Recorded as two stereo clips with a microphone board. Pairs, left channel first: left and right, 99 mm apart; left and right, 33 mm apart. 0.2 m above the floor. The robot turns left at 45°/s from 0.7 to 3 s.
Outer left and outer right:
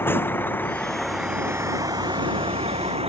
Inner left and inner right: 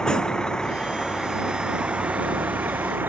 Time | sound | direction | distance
0.0 | a vehicle | 20° left (ahead or behind) | ?